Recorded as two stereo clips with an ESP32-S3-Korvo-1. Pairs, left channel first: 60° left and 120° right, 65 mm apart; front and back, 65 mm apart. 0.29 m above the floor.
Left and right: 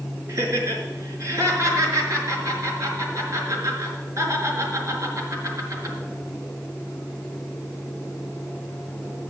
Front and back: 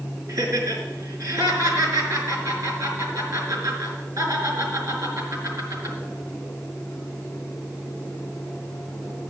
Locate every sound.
0.3 s laughter: 160° right, 5 m